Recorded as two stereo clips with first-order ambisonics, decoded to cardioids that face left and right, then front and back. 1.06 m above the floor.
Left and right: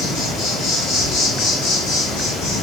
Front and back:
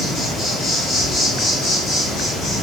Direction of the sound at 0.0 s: 70° left.